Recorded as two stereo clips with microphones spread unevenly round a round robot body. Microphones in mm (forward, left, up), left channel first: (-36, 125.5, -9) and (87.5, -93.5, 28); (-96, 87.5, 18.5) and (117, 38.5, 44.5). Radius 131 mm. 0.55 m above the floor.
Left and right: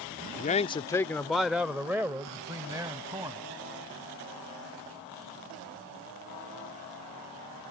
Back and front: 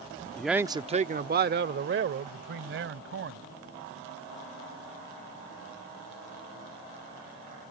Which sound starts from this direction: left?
A man speaking, at 0.4 s.